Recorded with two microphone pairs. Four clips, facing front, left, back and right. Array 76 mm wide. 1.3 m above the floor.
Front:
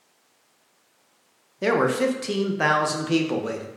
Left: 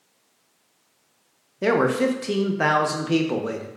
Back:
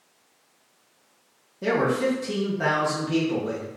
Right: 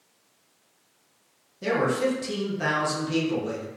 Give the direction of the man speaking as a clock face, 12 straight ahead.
10 o'clock.